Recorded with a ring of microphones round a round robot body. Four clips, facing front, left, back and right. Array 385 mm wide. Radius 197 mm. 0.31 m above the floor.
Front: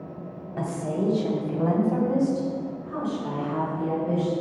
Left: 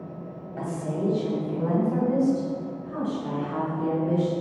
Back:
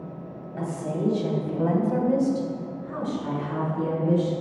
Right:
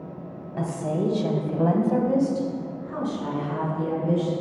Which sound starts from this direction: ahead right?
A woman speaking, at 0.6 s.